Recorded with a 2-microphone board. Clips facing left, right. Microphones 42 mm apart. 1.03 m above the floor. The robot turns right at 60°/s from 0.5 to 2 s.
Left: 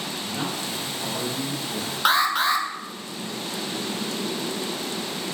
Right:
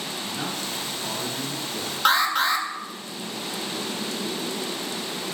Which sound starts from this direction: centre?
An alarm, at 2.0 s.